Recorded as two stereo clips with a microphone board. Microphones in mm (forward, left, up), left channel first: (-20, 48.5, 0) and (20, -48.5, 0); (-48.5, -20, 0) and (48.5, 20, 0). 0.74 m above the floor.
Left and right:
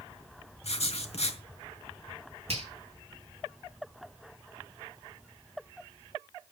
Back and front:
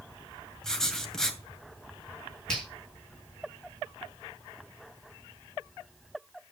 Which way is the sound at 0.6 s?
120° left.